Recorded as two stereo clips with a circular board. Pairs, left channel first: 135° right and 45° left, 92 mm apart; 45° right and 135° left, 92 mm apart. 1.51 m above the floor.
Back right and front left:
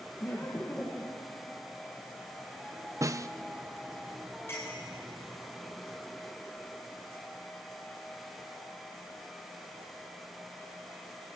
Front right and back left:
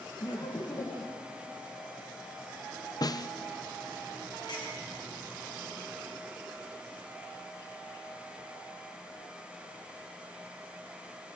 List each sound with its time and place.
0.2 s laughter: 80° right, 2 m; by 1.3 s 55° right, 2.5 m
3.0 s a snare drum: 5° right, 0.6 m
4.5 s a clink: 75° right, 8.5 m